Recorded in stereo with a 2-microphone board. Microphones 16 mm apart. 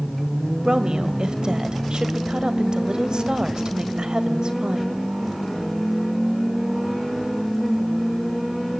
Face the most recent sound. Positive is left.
turn(degrees=-55)  # may be behind; listen again after turning